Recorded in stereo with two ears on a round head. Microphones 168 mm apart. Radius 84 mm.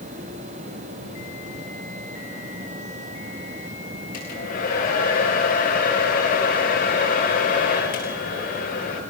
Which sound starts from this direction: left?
A hair dryer, at 4.1 s.